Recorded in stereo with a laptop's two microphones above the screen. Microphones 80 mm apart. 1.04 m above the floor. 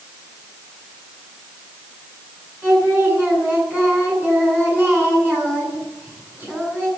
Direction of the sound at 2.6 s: 25° right (ahead or behind).